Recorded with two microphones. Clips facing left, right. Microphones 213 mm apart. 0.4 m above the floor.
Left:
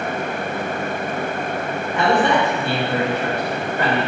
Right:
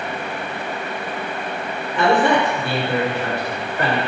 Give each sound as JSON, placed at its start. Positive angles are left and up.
{"t": 1.9, "sound": "a man speaking", "side_deg": -30, "distance_m": 1.5}